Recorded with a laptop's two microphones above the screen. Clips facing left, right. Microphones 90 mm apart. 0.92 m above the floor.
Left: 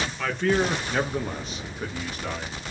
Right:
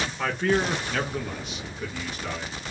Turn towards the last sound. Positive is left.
turn(degrees=45)  # may be behind; listen again after turning